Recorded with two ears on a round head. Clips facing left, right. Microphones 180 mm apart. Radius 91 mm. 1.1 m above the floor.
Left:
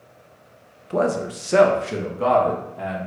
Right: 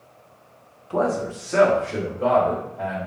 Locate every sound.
0.9 s a man speaking: 25° left (ahead or behind), 0.6 m; by 3.1 s 85° left, 1.4 m